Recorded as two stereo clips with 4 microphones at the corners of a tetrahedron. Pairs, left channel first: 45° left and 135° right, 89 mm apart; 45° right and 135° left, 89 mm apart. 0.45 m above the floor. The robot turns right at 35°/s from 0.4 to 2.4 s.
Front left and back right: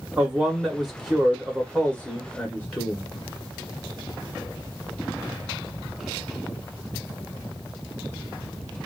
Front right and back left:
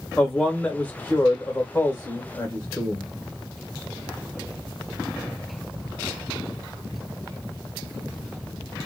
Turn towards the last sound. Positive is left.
turn(degrees=0)